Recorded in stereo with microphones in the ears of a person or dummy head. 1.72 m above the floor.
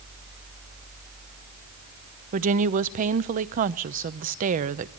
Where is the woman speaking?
45° right (ahead or behind), 0.8 m.